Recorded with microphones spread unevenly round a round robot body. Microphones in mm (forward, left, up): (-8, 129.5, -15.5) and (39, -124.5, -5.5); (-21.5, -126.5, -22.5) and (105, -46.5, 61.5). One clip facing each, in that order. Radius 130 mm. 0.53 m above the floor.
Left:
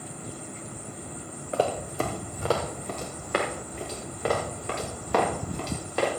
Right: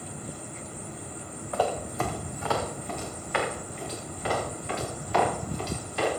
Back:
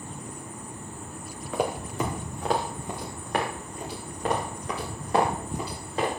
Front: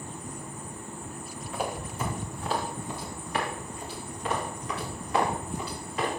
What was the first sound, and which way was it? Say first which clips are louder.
Running footsteps: left 2 dB, back 5 dB; 170° left.